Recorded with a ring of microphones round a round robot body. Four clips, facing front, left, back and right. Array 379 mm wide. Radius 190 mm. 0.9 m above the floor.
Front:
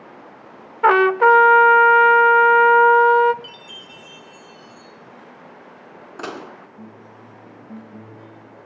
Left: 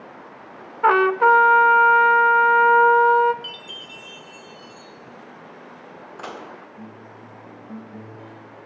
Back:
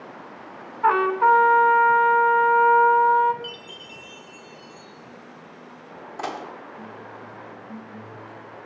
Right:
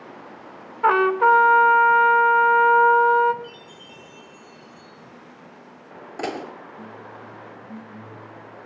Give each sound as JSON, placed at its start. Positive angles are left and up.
{"t": 0.8, "sound": "a trumpet", "azimuth_deg": 0, "distance_m": 1.1}
{"t": 3.4, "sound": "a chime", "azimuth_deg": 110, "distance_m": 5.5}
{"t": 6.2, "sound": "dishes clattering", "azimuth_deg": -60, "distance_m": 1.6}